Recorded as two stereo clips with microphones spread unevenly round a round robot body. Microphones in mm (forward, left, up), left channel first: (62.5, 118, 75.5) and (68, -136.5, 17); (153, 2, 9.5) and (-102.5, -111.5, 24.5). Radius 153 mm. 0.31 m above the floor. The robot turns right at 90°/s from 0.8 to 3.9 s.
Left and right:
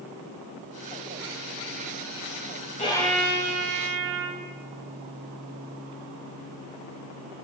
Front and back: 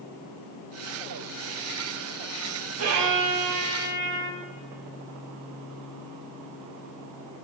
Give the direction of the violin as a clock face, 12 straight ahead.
7 o'clock.